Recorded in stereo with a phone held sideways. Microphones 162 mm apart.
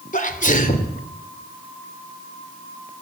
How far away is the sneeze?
About 3 m.